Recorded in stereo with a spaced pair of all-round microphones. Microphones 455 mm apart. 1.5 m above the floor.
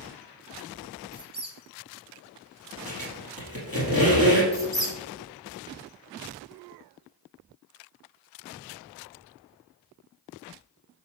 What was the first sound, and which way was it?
A squeak, 20° right (ahead or behind).